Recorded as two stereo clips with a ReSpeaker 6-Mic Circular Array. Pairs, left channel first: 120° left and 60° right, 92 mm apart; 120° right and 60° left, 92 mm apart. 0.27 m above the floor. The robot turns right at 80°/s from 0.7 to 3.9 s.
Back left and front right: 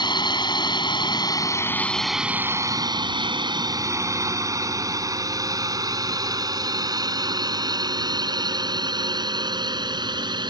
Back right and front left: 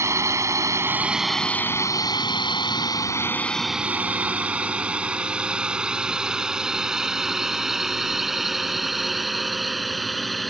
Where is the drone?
110° left; by 10.5 s 30° right.